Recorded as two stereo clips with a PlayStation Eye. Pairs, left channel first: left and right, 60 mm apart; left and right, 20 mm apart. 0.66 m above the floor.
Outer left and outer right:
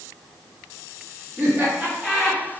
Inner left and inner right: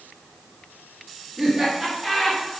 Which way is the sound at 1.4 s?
40° right (ahead or behind).